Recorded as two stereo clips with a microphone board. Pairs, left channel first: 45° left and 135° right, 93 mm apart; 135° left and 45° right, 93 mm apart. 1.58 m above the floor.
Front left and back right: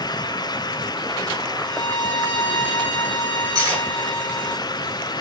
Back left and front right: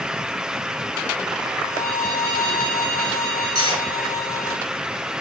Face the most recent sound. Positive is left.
turn(degrees=-80)